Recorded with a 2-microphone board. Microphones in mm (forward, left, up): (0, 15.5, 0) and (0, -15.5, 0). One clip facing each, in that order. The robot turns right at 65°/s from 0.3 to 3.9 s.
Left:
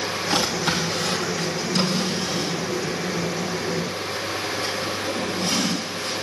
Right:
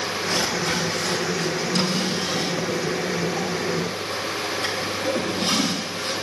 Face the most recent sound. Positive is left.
turn(degrees=-45)  # may be behind; listen again after turning